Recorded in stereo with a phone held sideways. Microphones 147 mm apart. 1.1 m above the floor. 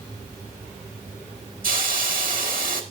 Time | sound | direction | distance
1.6 | a hiss | 70° right (ahead or behind) | 1.5 m